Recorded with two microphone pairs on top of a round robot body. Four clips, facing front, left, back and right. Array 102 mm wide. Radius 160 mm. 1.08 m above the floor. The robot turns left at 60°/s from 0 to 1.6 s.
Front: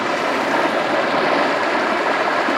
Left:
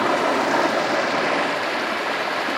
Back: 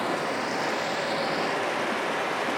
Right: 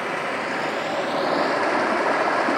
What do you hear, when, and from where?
0.0 s running water: 75° left, 2 m; by 2.6 s 20° right, 2 m